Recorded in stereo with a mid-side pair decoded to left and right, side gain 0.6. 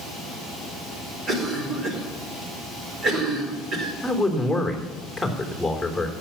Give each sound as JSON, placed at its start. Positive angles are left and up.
{"t": 1.3, "sound": "a cough", "azimuth_deg": -40, "distance_m": 4.5}
{"t": 4.0, "sound": "a man speaking", "azimuth_deg": 0, "distance_m": 3.5}